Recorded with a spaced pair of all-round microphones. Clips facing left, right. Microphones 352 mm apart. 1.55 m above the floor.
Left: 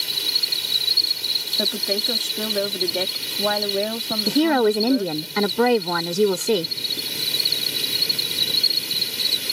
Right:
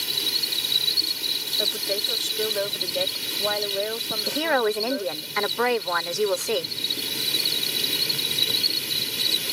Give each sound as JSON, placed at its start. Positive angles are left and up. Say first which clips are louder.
{"t": 0.0, "sound": "an insect", "louder": "right 1 dB", "side_deg": -25}
{"t": 1.6, "sound": "a woman speaking", "louder": "left 4 dB", "side_deg": 70}
{"t": 4.3, "sound": "a woman speaking", "louder": "left 7 dB", "side_deg": 50}